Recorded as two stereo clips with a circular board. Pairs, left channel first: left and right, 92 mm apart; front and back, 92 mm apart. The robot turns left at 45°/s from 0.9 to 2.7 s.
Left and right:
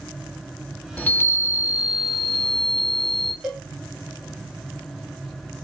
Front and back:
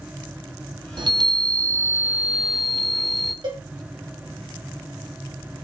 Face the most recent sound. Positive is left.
turn(degrees=-175)